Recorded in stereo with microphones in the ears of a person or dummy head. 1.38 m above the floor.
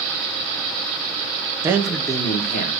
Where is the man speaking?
20° right (ahead or behind), 0.6 m; by 2.7 s 50° left (ahead or behind), 0.9 m.